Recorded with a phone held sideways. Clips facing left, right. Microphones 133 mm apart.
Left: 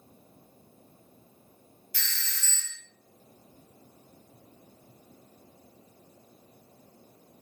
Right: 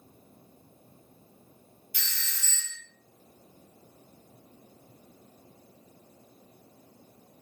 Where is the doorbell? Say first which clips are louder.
Left 2 dB; 15° right (ahead or behind), 0.9 m.